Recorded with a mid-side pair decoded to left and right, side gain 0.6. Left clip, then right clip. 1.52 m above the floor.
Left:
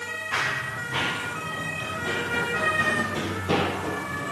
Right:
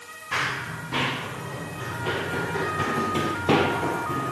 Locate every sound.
0.3 s running footsteps: 25° right, 9 m; by 4.3 s 55° right, 5.5 m